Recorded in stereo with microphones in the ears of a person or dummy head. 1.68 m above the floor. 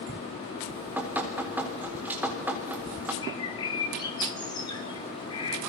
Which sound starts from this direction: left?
A bird, at 3.2 s.